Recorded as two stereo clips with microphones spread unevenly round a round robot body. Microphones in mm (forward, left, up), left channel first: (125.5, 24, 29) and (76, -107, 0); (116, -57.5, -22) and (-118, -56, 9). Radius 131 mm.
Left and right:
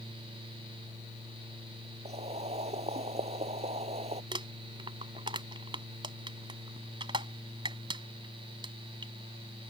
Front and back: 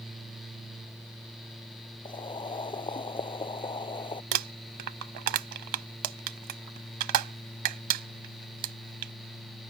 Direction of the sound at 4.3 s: 175° right.